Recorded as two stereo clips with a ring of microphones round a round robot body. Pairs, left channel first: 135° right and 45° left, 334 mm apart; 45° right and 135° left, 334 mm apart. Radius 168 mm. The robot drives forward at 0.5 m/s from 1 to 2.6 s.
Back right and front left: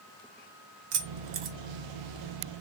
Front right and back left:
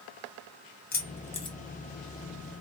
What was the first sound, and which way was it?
Keys jangling, 15° left.